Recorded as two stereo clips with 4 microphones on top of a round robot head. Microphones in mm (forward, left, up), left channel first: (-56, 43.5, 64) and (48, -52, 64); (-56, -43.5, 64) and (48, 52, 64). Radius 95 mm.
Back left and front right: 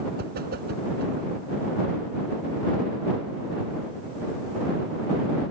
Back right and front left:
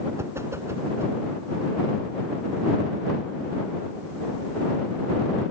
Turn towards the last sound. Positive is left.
turn(degrees=-30)